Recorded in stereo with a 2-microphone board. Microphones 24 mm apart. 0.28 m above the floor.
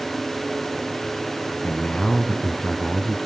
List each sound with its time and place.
1.6 s a man speaking: 60° left (ahead or behind), 1.9 m; by 3.2 s 35° left (ahead or behind), 2.0 m